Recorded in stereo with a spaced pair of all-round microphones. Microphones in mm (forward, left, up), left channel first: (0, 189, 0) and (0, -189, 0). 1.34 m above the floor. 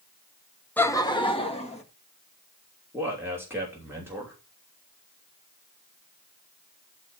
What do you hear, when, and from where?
0.8 s laughter: 5° left (ahead or behind), 0.8 m; by 1.8 s 15° left (ahead or behind), 2 m
2.9 s a man speaking: 5° right (ahead or behind), 3 m